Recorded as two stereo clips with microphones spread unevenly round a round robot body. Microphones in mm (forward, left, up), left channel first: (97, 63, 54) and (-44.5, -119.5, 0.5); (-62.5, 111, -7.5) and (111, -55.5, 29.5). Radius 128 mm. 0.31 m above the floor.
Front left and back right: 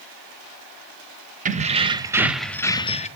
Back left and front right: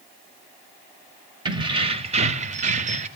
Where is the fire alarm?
I don't hear a fire alarm.